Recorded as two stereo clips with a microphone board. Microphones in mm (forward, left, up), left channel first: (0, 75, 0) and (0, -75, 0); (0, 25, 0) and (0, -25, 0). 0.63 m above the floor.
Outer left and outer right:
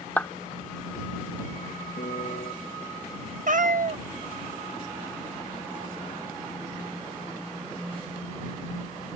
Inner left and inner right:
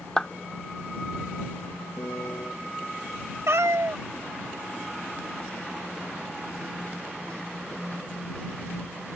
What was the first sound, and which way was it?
A clap, 10° left (ahead or behind).